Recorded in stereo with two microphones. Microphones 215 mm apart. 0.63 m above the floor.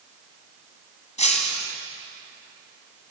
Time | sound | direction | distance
1.2 | breaking glass | 30° left (ahead or behind) | 2.5 m